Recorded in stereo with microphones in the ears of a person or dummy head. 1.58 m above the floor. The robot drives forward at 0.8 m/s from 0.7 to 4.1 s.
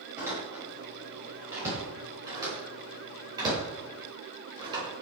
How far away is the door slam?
About 7 m.